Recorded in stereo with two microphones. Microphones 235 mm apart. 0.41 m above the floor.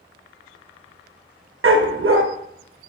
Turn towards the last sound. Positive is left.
turn(degrees=-60)  # may be behind; listen again after turning